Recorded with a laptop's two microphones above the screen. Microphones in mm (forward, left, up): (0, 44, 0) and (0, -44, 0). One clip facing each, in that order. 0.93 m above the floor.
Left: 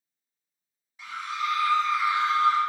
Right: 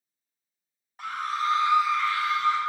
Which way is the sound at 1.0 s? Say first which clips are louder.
Right 3 dB; 55° right (ahead or behind).